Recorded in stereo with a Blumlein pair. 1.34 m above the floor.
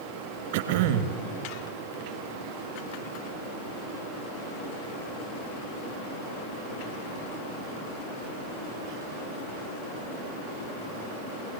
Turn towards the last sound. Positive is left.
turn(degrees=-55)